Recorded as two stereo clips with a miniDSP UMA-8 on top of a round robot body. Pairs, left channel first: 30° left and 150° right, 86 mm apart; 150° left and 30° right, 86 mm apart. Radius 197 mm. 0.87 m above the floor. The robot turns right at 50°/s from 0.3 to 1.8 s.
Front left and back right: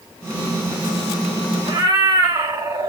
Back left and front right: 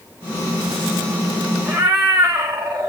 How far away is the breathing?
I don't hear breathing.